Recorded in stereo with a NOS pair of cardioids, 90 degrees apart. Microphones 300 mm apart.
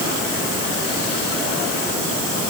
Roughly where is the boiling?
I don't hear boiling.